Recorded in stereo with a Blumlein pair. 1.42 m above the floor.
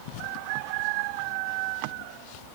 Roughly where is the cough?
I don't hear a cough.